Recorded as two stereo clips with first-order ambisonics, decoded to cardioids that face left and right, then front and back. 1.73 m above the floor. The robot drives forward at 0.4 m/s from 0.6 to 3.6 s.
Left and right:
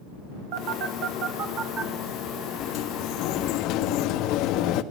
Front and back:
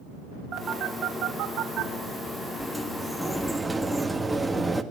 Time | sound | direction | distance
0.5 | a phone buzzing | 130° right | 2 m
2.6 | a sliding door | 80° left | 1.6 m